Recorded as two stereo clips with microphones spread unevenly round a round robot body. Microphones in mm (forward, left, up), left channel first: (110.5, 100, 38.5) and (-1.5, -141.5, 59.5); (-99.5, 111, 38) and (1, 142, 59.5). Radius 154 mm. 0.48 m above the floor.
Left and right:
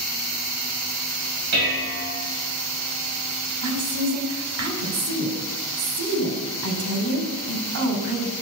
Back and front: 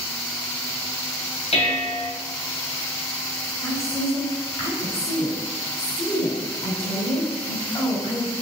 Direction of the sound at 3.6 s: 115° right.